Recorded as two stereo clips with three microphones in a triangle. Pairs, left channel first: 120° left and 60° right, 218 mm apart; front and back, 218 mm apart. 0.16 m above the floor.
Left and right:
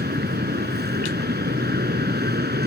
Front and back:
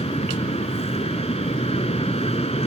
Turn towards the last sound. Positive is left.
turn(degrees=-50)